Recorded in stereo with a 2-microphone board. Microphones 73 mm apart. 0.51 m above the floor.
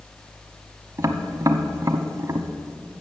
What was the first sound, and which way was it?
Tapping, 45° right (ahead or behind).